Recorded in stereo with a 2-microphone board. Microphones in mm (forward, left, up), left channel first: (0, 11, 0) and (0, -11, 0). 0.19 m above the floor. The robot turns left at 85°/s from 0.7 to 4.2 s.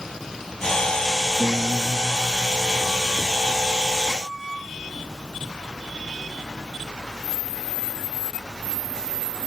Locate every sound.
1.4 s a guitar: 60° right; by 3.6 s 110° left